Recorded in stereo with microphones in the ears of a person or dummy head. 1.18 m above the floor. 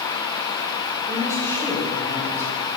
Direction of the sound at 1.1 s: 25° right (ahead or behind).